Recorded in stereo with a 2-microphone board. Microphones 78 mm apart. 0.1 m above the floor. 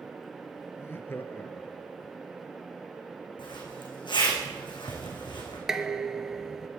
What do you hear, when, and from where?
0.8 s laughter: 35° left (ahead or behind), 1.3 m; by 2.1 s 10° left (ahead or behind), 1.7 m
3.4 s a zipper: 80° left, 5 m
5.7 s dishes clattering: 5° right (ahead or behind), 1.1 m